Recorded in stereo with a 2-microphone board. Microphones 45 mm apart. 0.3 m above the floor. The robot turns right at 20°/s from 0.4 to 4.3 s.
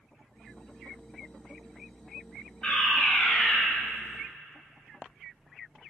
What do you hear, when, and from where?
2.6 s a fire alarm: 25° left (ahead or behind), 3 m; by 3.6 s 10° left (ahead or behind), 3 m